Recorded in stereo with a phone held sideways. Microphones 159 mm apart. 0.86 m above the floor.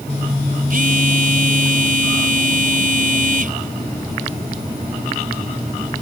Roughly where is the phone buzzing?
Right.